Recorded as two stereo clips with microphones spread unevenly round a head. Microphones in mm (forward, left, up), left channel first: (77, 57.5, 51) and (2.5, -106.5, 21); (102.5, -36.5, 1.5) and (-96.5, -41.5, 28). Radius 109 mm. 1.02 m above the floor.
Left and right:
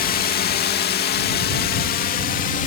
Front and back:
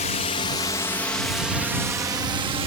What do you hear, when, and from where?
0.0 s a drone: 40° left; by 2.7 s 115° left